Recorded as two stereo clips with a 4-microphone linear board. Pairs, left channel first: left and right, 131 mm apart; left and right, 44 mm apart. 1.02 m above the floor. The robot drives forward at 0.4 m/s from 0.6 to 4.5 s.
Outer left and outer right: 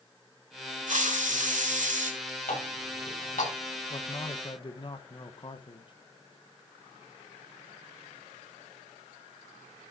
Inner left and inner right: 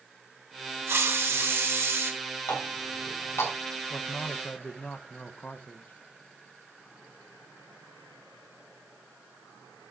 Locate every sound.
0.9 s a hiss: 70° right (ahead or behind), 1.5 m
2.5 s a running tap: 80° left, 5 m; by 3.5 s 85° left, 5 m
3.9 s a man speaking: 45° left (ahead or behind), 0.9 m; by 5.9 s 40° left (ahead or behind), 1.0 m